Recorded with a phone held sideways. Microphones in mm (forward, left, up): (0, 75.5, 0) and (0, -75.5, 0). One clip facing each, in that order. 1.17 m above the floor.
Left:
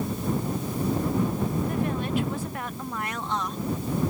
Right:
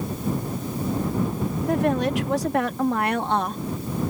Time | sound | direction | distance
1.7 | a woman speaking | 80° right | ?